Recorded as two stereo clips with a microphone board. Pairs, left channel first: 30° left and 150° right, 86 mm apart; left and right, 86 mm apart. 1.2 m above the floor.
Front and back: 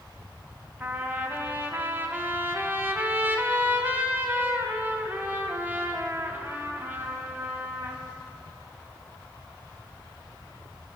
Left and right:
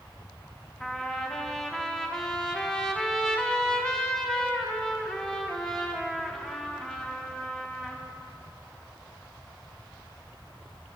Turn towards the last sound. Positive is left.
turn(degrees=165)